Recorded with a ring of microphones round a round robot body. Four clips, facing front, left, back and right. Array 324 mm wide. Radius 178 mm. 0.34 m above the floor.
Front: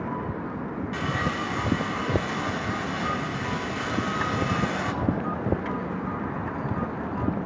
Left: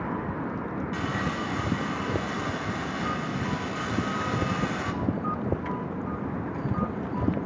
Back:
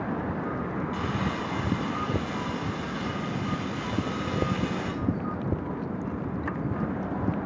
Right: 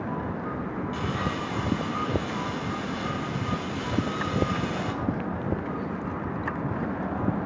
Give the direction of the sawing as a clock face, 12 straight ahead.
11 o'clock.